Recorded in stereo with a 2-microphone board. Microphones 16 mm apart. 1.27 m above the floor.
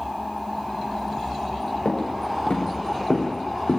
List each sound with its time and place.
1.9 s footsteps: 80° left, 7 m; by 3.8 s 75° left (ahead or behind), 5.5 m